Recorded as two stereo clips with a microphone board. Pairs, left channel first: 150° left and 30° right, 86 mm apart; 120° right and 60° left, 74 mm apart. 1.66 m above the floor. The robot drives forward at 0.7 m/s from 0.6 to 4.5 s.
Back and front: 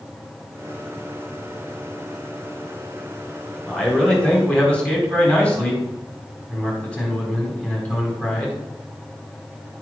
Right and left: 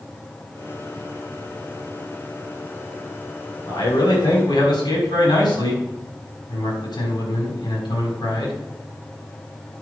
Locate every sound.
3.7 s a man speaking: 125° right, 4.5 m; by 8.6 s 130° right, 4.5 m